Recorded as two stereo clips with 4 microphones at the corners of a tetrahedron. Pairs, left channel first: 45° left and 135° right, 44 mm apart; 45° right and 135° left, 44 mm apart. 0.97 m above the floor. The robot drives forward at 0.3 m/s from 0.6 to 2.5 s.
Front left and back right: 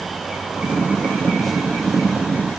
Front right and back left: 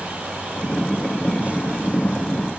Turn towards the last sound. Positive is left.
No sound to turn to.